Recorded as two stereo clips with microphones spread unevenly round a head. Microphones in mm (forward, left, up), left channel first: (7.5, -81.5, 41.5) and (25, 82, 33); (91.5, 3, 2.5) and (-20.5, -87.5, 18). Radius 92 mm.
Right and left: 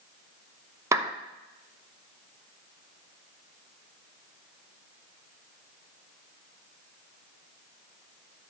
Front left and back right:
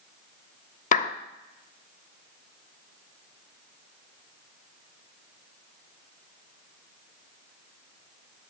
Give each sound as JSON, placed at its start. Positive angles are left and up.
{"t": 0.9, "sound": "a clap", "azimuth_deg": 10, "distance_m": 0.7}